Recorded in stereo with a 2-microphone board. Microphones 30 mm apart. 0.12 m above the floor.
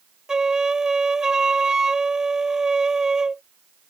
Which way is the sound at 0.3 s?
25° right (ahead or behind).